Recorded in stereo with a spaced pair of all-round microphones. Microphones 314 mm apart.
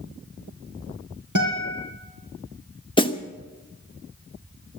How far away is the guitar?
About 5 m.